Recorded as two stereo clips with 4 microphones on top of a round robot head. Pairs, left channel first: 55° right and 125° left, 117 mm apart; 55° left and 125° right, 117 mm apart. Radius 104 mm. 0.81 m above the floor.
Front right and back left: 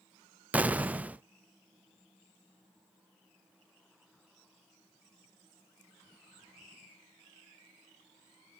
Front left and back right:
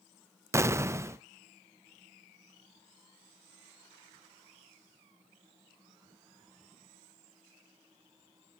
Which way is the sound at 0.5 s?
165° right.